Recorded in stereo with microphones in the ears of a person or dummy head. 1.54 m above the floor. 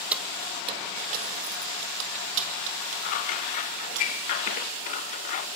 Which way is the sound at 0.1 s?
10° right (ahead or behind).